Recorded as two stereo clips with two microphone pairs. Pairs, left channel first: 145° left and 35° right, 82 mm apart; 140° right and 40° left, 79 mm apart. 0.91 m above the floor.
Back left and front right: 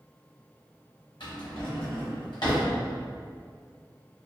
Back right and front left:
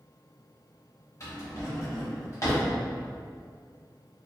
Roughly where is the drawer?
Behind.